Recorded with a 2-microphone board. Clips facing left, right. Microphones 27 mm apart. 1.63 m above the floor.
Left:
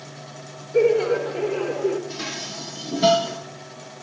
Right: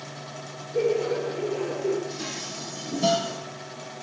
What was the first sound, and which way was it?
Laughter, 85° left.